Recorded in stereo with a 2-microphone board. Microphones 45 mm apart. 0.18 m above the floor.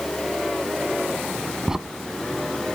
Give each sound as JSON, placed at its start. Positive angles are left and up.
{"t": 1.7, "sound": "a crack", "side_deg": -10, "distance_m": 0.7}